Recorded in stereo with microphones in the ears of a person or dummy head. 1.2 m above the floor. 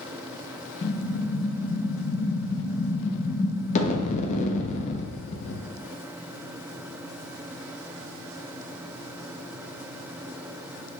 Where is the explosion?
35° left (ahead or behind), 0.6 m.